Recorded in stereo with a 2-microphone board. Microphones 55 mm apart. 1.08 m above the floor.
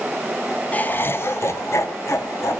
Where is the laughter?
30° left (ahead or behind), 0.7 m; by 2.6 s 70° left (ahead or behind), 1.7 m.